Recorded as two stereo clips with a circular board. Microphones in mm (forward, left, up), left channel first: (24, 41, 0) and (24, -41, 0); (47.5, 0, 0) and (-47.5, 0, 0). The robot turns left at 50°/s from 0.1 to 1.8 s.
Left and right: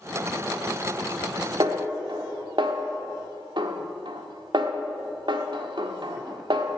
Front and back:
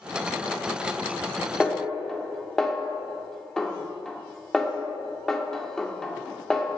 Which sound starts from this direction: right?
A snare drum, at 1.6 s.